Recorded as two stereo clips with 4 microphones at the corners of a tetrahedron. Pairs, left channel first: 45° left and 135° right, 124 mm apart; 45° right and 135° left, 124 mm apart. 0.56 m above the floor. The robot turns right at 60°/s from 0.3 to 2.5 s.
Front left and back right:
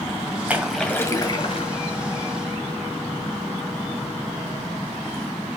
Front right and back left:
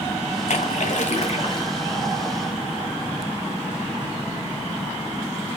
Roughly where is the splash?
Ahead right.